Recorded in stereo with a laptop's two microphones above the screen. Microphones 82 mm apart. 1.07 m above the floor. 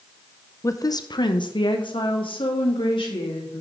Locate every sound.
0.6 s a woman speaking: 35° left (ahead or behind), 0.5 m; by 3.6 s 75° left (ahead or behind), 2.5 m